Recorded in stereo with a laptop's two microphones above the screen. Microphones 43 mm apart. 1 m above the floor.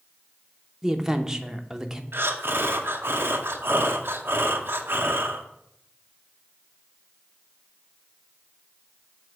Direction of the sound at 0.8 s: 10° right (ahead or behind).